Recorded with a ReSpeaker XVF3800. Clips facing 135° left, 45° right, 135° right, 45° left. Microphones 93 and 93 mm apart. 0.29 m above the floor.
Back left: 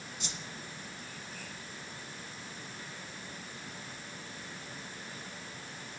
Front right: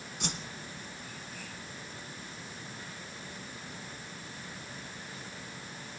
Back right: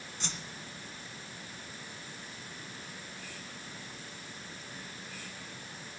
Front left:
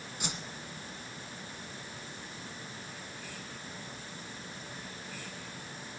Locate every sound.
0.2 s a whoosh: 30° right, 1.2 m